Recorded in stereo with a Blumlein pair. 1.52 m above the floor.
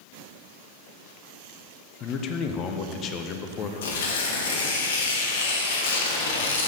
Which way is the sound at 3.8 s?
60° left.